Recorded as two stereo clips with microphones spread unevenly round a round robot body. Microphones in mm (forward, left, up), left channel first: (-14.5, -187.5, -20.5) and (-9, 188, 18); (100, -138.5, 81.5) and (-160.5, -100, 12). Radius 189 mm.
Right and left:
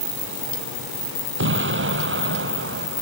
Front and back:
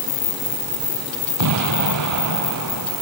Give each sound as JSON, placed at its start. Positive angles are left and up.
{"t": 1.4, "sound": "an explosion", "azimuth_deg": 150}